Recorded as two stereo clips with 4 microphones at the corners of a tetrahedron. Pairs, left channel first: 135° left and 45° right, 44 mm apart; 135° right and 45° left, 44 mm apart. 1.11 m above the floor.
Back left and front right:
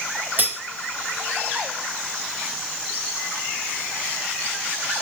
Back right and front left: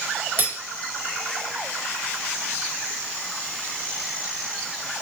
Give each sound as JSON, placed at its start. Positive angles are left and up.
{"t": 0.4, "sound": "cutlery clinking", "azimuth_deg": 0, "distance_m": 0.6}